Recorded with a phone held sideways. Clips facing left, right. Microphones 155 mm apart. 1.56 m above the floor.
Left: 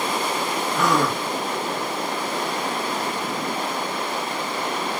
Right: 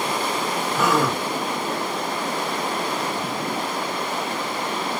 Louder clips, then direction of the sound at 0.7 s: Right 1 dB; 5° right (ahead or behind).